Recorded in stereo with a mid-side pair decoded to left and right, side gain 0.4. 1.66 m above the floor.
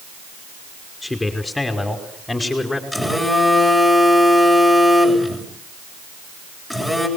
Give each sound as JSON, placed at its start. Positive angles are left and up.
{"t": 1.0, "sound": "a man speaking", "azimuth_deg": 20, "distance_m": 5.0}
{"t": 2.9, "sound": "a phone buzzing", "azimuth_deg": -5, "distance_m": 7.5}